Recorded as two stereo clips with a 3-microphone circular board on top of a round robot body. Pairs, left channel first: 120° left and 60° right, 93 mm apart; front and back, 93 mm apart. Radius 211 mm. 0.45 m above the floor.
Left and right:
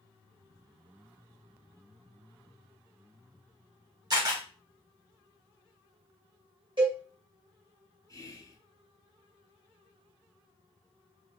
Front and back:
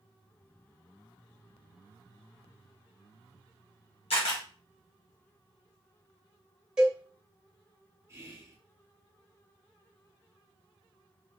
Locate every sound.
4.1 s a camera shutter: 15° right, 0.8 m
6.8 s a cowbell: 100° right, 1.2 m
8.1 s whispering: 140° left, 1.4 m